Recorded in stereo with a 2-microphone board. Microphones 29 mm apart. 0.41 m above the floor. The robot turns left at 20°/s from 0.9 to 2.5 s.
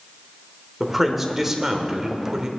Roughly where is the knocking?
I don't hear knocking.